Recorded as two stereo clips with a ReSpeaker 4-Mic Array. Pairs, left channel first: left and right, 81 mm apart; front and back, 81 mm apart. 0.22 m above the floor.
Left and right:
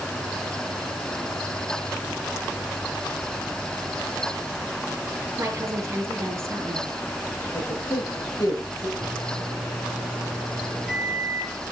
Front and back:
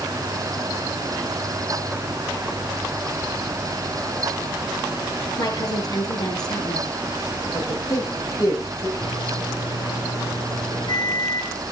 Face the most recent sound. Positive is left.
turn(degrees=0)